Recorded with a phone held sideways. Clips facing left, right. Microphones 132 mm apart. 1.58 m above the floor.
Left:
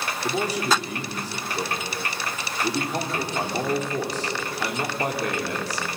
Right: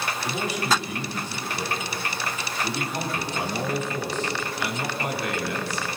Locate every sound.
0.2 s a man speaking: 35° left (ahead or behind), 4.5 m